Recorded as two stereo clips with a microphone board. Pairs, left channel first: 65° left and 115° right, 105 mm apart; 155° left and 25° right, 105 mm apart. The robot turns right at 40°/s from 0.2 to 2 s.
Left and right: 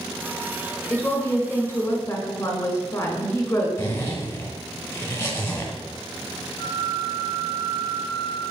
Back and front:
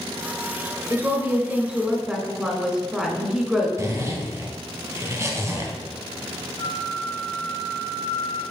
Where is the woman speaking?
10° left, 1.5 m; by 3.7 s 50° left, 1.5 m.